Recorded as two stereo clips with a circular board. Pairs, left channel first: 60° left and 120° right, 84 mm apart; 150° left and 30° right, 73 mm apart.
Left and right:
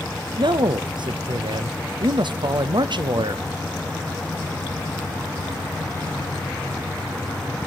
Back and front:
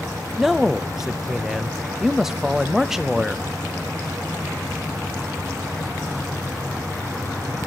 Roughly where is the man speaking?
Behind right.